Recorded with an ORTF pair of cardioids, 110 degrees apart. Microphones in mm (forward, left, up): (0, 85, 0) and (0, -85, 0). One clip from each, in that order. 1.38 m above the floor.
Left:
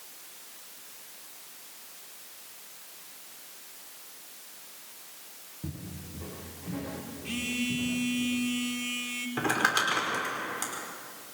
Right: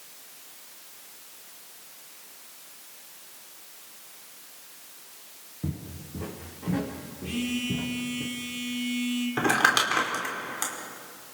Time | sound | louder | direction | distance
5.6 | footsteps | right 5 dB | 40° right | 5.5 m
7.2 | a phone buzzing | right 1 dB | 10° left | 3 m
9.4 | crumpling | right 4 dB | 25° right | 5 m